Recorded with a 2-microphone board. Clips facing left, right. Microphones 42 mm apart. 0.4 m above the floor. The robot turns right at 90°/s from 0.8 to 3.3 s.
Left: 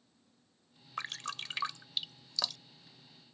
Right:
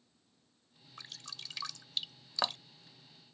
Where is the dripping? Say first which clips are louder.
Left 10 dB; 65° left (ahead or behind); by 2.8 s 60° right (ahead or behind).